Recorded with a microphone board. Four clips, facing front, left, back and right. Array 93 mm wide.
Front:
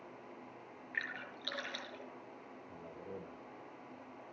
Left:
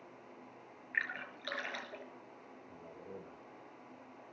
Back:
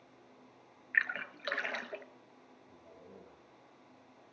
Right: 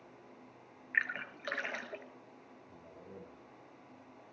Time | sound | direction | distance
0.9 | a splash | 155° right | 2.5 m
2.7 | a man speaking | 20° left | 4.5 m